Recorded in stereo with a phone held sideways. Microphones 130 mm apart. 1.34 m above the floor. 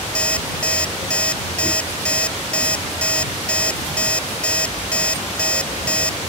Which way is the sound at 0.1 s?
10° left (ahead or behind).